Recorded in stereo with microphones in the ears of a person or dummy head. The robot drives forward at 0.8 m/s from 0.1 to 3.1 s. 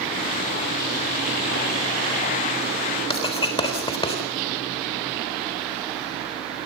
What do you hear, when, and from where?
3.1 s writing: 25° left (ahead or behind), 3.5 m